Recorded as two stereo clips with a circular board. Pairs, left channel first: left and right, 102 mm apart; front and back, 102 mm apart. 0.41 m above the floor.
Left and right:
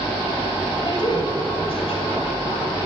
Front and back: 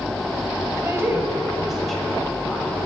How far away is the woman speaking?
About 1.8 m.